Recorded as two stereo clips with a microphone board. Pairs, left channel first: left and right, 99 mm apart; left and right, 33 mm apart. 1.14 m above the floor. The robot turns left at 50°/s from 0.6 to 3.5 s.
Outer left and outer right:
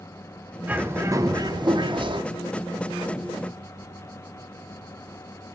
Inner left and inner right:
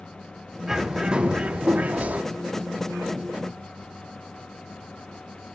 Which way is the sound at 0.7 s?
20° right.